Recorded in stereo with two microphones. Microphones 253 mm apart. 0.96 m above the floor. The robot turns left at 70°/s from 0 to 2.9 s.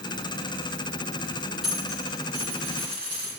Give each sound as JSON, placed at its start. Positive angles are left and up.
{"t": 1.6, "sound": "a dropped coin", "side_deg": -5, "distance_m": 4.0}